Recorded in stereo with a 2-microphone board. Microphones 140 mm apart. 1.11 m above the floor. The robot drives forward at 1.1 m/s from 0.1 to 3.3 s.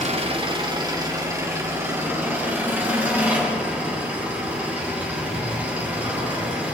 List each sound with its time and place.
0.0 s an engine running: 50° right (ahead or behind), 1.1 m; by 6.7 s 10° right (ahead or behind), 4 m